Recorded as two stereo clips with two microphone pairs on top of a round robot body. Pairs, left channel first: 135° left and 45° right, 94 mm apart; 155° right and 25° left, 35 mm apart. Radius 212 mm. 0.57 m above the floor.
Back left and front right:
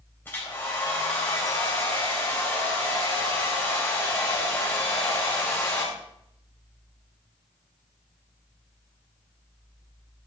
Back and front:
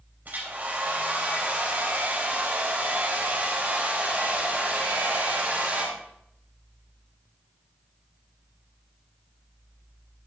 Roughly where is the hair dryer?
Ahead left.